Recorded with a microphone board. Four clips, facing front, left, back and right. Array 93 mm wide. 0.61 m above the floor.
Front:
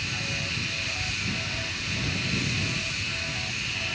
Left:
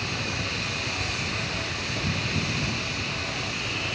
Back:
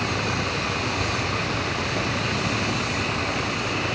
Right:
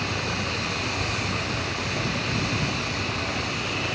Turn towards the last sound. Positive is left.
turn(degrees=-165)